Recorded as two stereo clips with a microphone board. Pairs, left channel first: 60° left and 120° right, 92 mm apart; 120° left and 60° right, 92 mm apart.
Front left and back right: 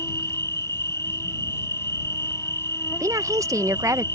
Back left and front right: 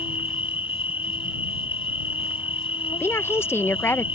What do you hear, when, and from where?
0.0 s an insect: 115° left
3.0 s a woman speaking: 175° right